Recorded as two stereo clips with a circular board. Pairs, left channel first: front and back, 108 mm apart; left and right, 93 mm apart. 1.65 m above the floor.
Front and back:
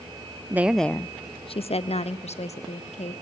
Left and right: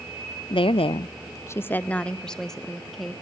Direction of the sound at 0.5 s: 110° left.